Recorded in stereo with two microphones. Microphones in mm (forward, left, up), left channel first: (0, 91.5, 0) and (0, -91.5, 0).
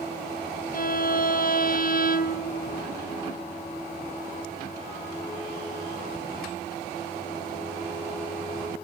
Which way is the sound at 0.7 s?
55° left (ahead or behind).